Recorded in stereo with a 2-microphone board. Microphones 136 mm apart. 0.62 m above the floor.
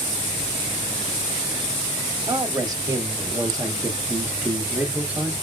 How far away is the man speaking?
About 1.2 m.